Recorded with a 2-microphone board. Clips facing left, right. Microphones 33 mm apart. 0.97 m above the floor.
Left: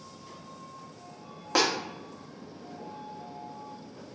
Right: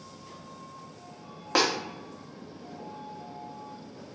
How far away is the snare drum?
About 0.6 m.